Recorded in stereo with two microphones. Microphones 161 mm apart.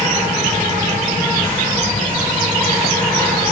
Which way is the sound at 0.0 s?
30° left (ahead or behind).